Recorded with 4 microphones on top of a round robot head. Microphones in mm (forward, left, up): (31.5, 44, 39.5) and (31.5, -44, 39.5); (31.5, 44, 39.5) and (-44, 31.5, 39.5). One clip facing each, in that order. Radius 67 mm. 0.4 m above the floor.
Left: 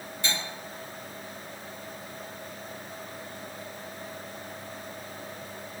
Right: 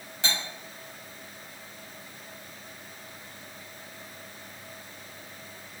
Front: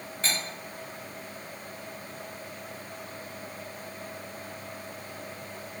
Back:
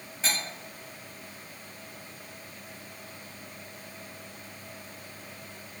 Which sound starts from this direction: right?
Cutlery clinking, at 0.2 s.